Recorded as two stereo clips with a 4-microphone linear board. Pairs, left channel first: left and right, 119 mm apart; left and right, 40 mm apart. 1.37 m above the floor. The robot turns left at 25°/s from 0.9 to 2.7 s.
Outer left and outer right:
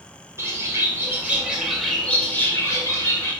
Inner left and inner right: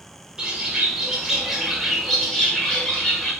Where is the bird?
160° right, 1.1 m; by 3.3 s 155° left, 1.1 m.